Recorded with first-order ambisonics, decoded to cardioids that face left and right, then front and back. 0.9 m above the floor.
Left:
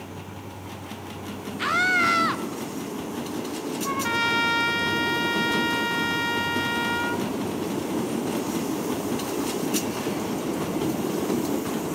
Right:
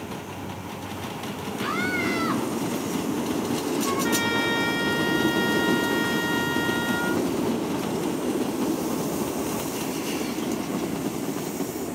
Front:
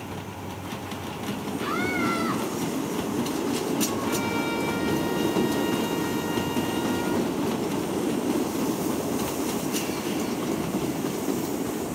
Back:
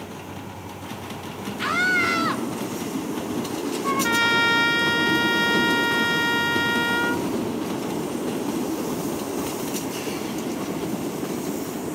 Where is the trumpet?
160° left, 1.9 m.